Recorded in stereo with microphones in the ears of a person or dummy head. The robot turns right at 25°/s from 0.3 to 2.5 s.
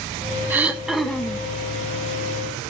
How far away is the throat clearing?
About 0.9 m.